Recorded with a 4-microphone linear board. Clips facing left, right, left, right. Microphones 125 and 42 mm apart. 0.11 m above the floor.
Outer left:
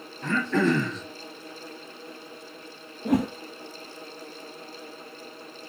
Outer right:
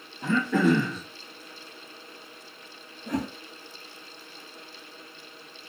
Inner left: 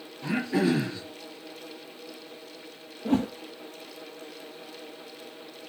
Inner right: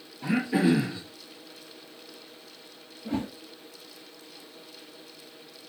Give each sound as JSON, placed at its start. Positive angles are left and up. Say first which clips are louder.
{"t": 0.2, "sound": "throat clearing", "louder": "outer right 1 dB, inner right 1 dB", "side_deg": -10, "distance_m": 1.7}
{"t": 3.0, "sound": "a whoosh", "louder": "outer left 7 dB, inner left 6 dB", "side_deg": 65, "distance_m": 1.2}